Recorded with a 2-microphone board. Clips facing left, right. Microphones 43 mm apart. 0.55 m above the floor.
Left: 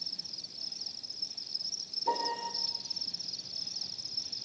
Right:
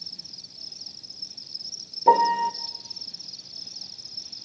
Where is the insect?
Centre (ahead or behind), 0.7 m.